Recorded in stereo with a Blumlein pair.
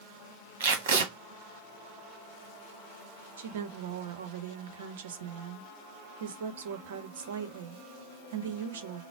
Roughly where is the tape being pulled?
Ahead right.